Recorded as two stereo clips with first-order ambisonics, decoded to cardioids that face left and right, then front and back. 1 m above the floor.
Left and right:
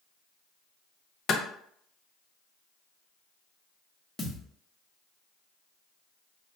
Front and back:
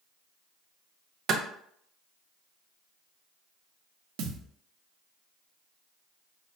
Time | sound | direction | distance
1.3 | a clap | 135° left | 0.6 m
4.2 | a thud | 170° left | 0.8 m